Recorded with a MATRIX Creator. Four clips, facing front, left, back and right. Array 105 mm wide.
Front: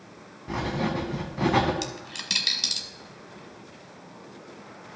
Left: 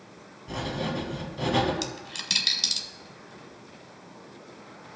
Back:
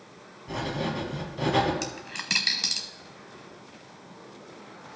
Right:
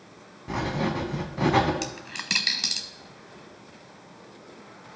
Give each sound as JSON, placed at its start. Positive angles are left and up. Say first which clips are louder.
{"t": 0.5, "sound": "writing", "louder": "right 3 dB, front 2 dB", "azimuth_deg": -55, "distance_m": 1.2}
{"t": 1.8, "sound": "a dropped coin", "louder": "right 1 dB, even", "azimuth_deg": -125, "distance_m": 0.7}